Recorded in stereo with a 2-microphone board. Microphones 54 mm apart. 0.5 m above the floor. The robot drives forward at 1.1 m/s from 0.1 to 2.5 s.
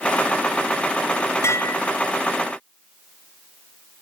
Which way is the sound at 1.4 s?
60° left (ahead or behind).